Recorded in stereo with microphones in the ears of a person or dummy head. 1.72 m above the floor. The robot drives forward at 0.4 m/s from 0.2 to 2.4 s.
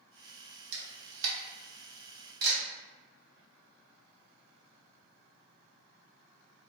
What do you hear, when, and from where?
0.7 s a camera shutter: 55° right (ahead or behind), 0.7 m